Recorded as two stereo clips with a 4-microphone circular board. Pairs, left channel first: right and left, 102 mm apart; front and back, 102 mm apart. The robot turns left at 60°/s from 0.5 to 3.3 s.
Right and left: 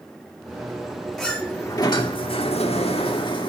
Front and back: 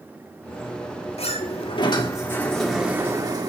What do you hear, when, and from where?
1.2 s a sliding door: straight ahead, 1.9 m; by 3.5 s 130° right, 1.9 m